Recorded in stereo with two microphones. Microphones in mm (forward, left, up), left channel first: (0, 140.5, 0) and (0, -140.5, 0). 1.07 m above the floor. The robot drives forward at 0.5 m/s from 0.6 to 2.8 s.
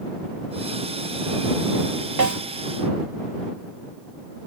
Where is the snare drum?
85° right, 1.2 m; by 2.4 s 80° right, 1.2 m.